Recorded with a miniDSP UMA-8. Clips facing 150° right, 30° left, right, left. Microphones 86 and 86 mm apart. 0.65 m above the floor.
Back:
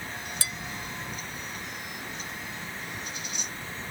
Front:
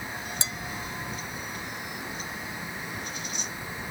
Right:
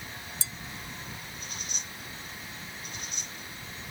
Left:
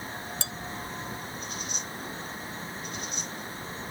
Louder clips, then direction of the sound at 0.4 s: Front 1 dB, left 6 dB; 95° left.